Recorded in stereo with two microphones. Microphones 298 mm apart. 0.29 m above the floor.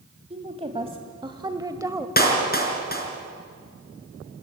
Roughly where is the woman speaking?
Right.